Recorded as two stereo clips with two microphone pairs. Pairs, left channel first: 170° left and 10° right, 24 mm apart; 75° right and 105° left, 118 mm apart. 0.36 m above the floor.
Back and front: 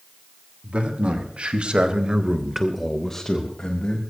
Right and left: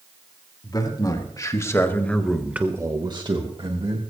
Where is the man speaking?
25° right, 3 m; by 4.0 s 135° left, 2.5 m.